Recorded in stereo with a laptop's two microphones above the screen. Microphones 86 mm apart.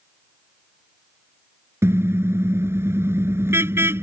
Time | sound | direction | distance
1.8 | a car horn | 30° right (ahead or behind) | ?